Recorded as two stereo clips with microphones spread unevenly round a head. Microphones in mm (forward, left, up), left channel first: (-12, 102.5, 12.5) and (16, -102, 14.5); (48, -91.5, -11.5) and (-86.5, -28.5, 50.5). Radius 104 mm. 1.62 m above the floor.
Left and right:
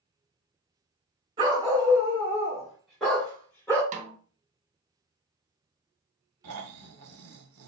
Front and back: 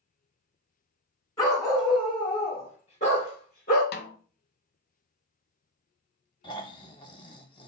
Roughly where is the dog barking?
Behind right.